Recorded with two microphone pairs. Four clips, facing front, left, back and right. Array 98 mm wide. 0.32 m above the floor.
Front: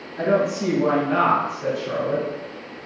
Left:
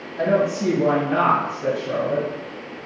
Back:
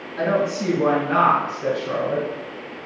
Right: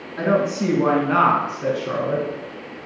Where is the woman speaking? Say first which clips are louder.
Even, front 1 dB; 110° right, 4 m; by 2.3 s 95° right, 3 m.